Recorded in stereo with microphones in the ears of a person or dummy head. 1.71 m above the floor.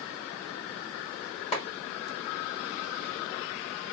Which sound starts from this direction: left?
A clap, at 1.5 s.